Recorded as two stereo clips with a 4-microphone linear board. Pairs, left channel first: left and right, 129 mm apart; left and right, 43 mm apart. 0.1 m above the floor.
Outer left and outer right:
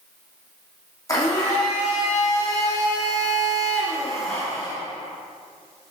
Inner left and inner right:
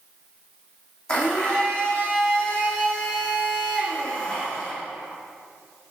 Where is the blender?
25° left (ahead or behind), 1.9 m.